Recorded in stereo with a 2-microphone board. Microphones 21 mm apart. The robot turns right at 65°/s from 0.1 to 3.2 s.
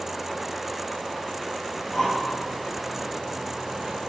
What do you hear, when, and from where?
1.7 s breathing: 35° left (ahead or behind), 3.5 m; by 4.0 s 60° right (ahead or behind), 3.5 m